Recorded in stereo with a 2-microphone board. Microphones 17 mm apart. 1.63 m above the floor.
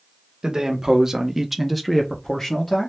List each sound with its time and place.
0.4 s a man speaking: 35° right (ahead or behind), 0.9 m; by 2.9 s 35° left (ahead or behind), 0.9 m